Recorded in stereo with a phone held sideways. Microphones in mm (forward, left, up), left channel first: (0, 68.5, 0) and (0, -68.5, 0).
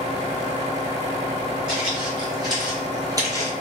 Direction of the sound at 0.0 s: 35° right (ahead or behind).